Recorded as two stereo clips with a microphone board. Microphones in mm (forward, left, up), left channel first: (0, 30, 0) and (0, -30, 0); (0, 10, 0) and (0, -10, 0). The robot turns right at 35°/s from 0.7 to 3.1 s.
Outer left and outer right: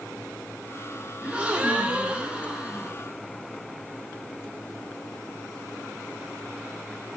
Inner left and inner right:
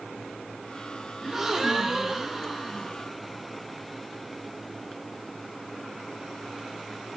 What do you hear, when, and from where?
1.2 s a gasp: 20° right (ahead or behind), 0.6 m; by 3.0 s 15° right (ahead or behind), 0.6 m